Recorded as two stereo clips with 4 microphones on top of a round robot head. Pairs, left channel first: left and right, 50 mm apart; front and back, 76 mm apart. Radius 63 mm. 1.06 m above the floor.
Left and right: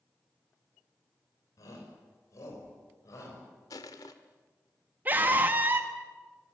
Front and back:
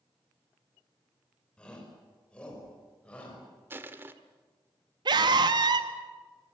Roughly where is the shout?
Left.